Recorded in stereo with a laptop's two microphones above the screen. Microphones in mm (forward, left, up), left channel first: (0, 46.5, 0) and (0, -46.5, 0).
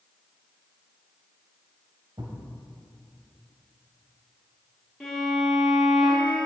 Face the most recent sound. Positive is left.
turn(degrees=5)  # may be behind; listen again after turning